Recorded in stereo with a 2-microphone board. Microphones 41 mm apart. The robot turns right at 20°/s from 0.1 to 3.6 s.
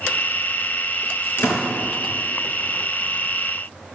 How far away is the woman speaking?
No woman speaking in this recording.